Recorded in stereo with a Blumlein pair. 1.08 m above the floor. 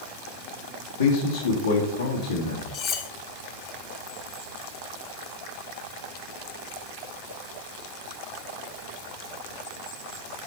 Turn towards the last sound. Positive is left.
turn(degrees=35)